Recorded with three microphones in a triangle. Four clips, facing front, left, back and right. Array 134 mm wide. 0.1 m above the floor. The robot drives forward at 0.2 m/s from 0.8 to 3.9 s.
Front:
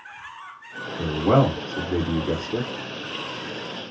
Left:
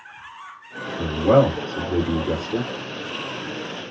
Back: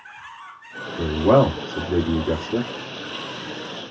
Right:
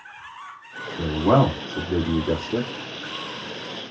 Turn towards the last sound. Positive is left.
turn(degrees=-160)